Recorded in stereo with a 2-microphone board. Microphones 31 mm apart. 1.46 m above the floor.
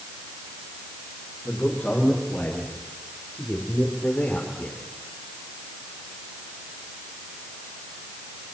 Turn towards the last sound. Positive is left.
turn(degrees=65)  # may be behind; listen again after turning